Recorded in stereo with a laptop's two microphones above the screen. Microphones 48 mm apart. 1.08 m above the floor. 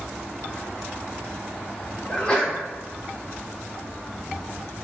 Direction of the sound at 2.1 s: 20° left (ahead or behind).